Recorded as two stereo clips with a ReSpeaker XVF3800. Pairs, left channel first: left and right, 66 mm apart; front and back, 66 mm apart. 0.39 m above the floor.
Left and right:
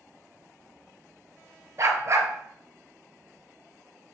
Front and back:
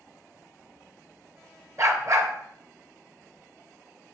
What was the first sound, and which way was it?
A dog barking, 135° right.